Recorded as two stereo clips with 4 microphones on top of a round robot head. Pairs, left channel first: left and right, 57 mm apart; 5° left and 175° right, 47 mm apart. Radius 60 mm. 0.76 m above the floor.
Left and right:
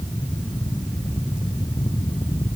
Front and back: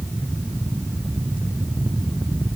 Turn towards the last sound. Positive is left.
No sound to turn to.